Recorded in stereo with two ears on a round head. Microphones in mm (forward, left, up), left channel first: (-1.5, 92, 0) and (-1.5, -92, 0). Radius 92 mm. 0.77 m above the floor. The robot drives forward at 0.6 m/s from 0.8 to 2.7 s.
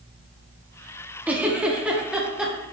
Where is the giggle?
10° right (ahead or behind), 0.9 m; by 2.5 s 5° right (ahead or behind), 1.6 m.